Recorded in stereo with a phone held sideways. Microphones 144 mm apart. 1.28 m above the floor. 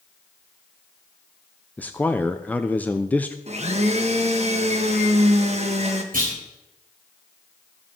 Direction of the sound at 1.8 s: 10° left (ahead or behind).